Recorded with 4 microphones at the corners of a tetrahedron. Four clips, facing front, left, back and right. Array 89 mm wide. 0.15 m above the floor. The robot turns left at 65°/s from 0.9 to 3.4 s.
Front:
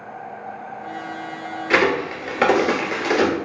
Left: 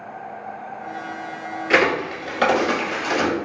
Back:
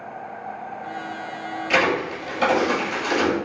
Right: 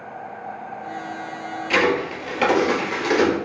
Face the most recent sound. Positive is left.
turn(degrees=-60)